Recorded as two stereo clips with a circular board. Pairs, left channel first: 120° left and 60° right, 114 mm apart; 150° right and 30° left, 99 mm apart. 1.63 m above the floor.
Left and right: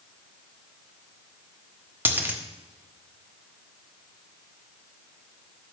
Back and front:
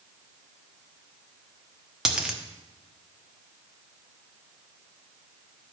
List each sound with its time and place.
2.0 s a dropped coin: 45° right, 1.1 m